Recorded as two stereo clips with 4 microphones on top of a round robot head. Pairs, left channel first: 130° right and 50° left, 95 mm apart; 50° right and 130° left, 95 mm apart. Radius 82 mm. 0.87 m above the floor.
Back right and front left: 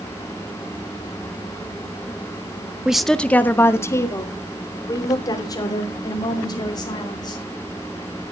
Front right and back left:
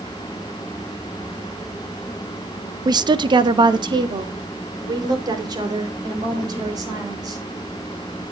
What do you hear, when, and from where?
2.9 s a woman speaking: 125° left, 0.8 m; by 7.4 s straight behind, 5 m